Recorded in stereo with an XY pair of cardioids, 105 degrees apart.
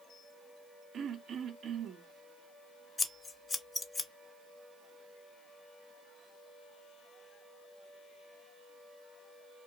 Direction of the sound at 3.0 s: 25° left.